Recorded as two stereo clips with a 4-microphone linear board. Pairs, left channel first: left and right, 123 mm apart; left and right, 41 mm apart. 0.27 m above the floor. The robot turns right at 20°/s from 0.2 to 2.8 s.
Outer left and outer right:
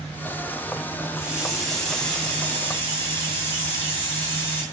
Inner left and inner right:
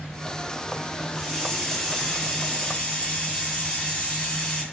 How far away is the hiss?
About 5 m.